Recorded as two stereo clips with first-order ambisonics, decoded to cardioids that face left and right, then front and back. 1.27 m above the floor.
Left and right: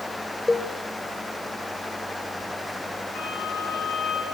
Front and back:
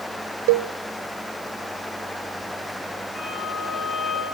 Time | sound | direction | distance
0.5 | a cowbell | 170° left | 0.8 m
3.1 | a violin | 65° left | 8 m